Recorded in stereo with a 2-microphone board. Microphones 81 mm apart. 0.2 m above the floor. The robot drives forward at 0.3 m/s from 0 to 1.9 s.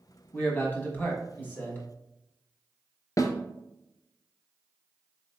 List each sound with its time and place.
0.3 s a man speaking: 25° left (ahead or behind), 1.1 m; by 1.8 s 20° left (ahead or behind), 1.1 m
3.2 s a snare drum: 45° left (ahead or behind), 0.6 m